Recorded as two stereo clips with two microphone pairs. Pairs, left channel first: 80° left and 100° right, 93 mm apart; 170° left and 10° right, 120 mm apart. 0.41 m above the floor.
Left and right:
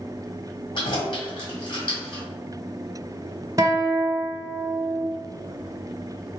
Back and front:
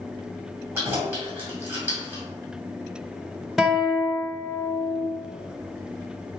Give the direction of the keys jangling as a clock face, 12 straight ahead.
10 o'clock.